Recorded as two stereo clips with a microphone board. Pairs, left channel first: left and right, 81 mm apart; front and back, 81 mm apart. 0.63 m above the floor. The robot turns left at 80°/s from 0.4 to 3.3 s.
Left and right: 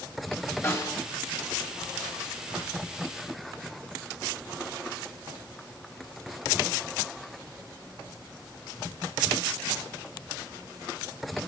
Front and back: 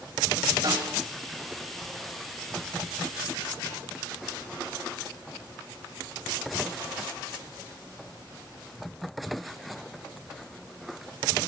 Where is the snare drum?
145° left, 3.5 m; by 1.0 s 120° left, 3.5 m.